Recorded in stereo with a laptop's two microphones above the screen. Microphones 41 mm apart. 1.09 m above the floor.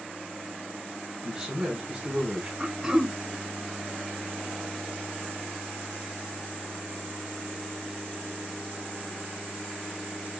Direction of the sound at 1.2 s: 25° right (ahead or behind).